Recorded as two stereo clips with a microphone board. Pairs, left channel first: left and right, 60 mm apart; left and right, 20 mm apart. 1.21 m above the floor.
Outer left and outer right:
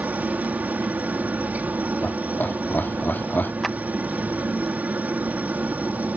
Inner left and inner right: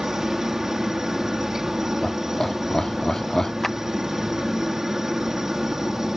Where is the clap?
Centre (ahead or behind).